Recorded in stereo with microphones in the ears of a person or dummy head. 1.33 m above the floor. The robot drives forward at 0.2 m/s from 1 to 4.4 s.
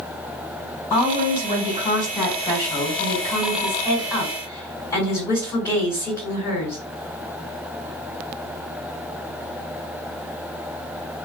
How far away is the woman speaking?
About 1.5 m.